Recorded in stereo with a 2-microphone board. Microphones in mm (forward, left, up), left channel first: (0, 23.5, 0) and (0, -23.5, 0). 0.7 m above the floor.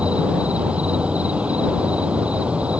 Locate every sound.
0.0 s an insect: 25° right (ahead or behind)